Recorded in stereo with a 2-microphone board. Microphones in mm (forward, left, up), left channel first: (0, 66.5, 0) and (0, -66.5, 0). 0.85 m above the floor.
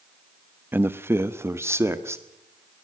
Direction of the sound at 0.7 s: 15° right (ahead or behind).